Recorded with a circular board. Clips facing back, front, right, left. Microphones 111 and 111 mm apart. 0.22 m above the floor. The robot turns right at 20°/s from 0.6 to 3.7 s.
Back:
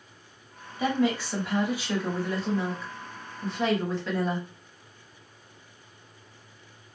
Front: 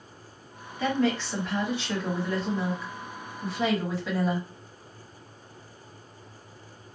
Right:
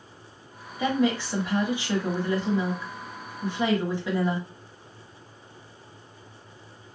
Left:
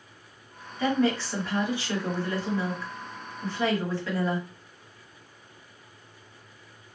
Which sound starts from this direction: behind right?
A woman speaking, at 0.8 s.